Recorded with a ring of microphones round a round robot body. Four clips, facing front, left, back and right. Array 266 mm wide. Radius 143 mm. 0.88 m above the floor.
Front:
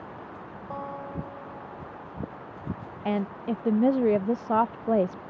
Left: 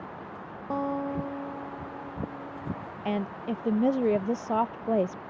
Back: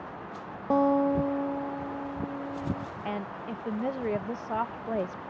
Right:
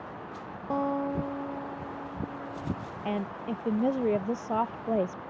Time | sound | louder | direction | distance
0.7 | a guitar | right 1 dB, back 13 dB | straight behind | ?
3.0 | a woman speaking | left 2 dB, front 8 dB | 10° left | ?